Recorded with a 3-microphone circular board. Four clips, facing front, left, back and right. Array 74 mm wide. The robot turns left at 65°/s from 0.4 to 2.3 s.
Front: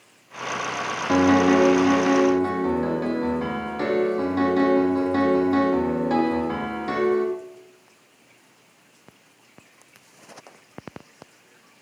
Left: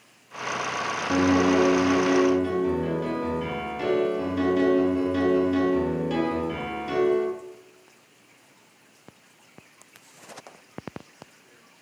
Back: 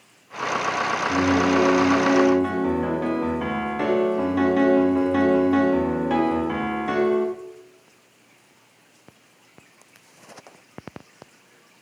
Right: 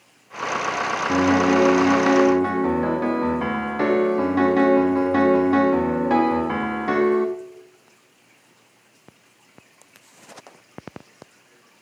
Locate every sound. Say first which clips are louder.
1.1 s a piano: right 2 dB, front 4 dB; 15° right, 1.7 m; by 7.3 s 95° right, 1.7 m